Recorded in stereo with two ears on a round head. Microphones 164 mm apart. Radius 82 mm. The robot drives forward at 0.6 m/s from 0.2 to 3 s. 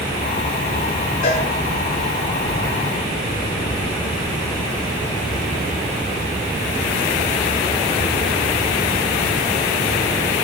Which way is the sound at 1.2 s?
50° left (ahead or behind).